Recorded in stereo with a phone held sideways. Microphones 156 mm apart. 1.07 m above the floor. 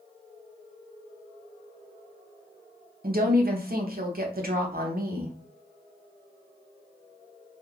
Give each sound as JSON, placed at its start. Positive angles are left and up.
{"t": 3.0, "sound": "a woman speaking", "side_deg": -65, "distance_m": 0.7}